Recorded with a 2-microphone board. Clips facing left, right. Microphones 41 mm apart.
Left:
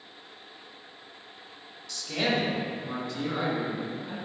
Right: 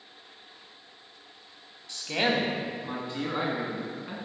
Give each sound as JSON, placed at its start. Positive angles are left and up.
{"t": 1.9, "sound": "a man speaking", "side_deg": -30, "distance_m": 1.1}